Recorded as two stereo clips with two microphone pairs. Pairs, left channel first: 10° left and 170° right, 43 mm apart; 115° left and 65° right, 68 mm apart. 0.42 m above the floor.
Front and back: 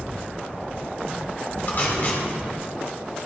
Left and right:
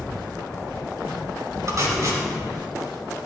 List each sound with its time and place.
1.7 s tape being pulled: 35° right, 4 m